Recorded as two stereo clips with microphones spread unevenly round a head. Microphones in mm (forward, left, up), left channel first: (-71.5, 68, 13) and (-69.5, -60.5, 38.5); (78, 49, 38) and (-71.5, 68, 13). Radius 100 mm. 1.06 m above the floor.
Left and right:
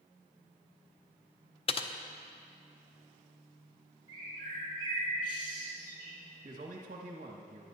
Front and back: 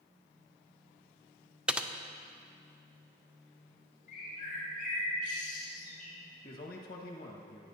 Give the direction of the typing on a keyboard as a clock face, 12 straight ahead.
9 o'clock.